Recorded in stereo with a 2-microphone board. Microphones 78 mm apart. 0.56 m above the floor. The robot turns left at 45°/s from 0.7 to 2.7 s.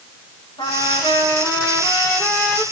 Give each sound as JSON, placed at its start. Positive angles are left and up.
{"t": 0.6, "sound": "a trumpet", "azimuth_deg": 95, "distance_m": 8.0}